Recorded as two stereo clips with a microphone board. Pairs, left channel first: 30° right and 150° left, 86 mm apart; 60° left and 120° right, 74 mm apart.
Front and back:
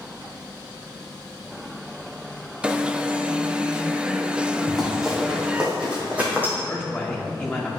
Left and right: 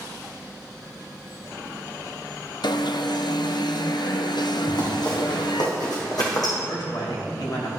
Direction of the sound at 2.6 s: 70° left.